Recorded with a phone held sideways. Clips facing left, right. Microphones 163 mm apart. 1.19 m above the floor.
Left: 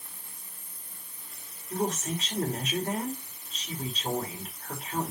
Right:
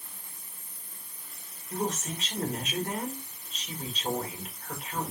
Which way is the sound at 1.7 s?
35° left (ahead or behind).